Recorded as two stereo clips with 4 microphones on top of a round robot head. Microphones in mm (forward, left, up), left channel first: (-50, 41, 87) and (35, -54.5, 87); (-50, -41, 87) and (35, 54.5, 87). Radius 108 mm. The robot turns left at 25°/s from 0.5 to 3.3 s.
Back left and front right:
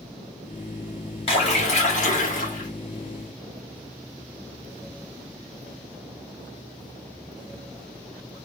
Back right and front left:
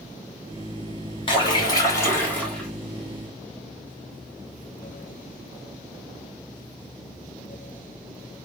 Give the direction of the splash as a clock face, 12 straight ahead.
6 o'clock.